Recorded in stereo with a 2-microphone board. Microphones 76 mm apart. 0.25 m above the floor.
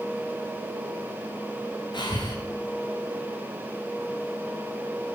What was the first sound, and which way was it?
Breathing, 80° left.